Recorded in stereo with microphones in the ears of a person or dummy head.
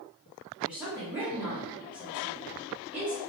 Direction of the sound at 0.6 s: 5° right (ahead or behind).